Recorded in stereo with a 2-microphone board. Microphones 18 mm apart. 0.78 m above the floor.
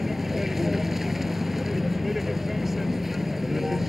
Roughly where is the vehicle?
Centre.